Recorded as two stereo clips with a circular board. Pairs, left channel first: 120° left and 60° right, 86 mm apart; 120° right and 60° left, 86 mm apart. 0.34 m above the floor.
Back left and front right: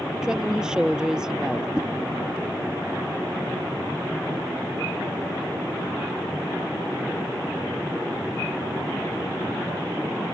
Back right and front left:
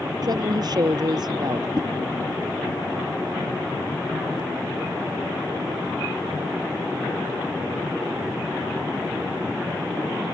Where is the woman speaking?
20° left.